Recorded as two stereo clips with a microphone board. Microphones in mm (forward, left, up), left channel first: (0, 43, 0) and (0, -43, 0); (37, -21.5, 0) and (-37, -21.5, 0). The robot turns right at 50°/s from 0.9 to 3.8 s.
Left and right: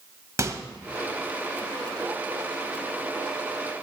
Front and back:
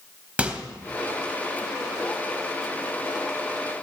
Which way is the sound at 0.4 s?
115° right.